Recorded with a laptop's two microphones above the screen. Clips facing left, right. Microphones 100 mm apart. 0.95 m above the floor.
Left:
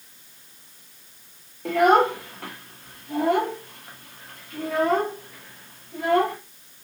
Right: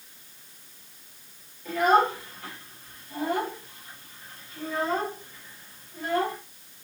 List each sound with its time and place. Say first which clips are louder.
1.6 s a child speaking: left 4 dB; 70° left (ahead or behind), 0.8 m